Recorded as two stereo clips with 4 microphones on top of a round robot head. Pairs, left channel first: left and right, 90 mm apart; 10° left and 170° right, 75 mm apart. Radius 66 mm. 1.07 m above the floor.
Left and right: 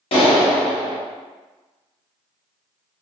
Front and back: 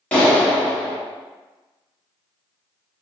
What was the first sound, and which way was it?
A clap, 80° left.